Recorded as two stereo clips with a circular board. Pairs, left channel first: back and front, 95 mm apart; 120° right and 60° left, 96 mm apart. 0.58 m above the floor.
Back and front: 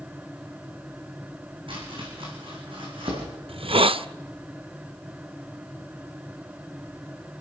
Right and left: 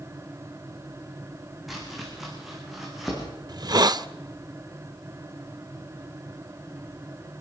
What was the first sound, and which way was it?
Chopping, 25° right.